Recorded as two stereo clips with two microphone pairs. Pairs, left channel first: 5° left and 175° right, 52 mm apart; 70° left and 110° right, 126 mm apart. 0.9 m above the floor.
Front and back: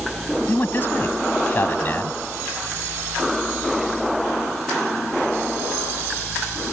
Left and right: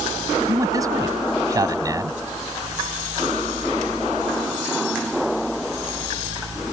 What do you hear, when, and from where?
0.5 s a man speaking: 45° right